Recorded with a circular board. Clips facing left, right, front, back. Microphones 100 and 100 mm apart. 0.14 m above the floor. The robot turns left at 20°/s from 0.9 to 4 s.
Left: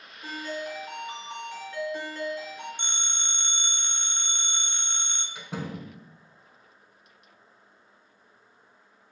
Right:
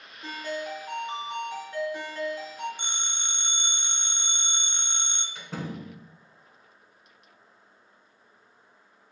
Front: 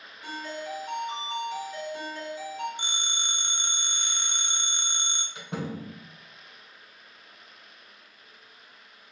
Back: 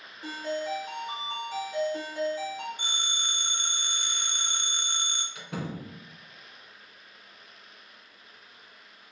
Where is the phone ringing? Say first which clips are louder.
Even, even; 20° right, 0.7 m; by 5.2 s 40° right, 0.7 m.